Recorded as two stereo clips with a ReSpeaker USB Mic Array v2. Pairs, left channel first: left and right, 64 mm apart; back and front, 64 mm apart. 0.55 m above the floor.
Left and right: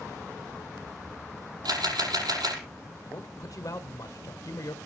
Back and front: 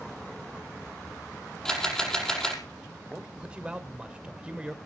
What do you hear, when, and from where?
1.6 s a camera shutter: 100° right, 5.5 m
3.0 s a man speaking: 70° left, 1.7 m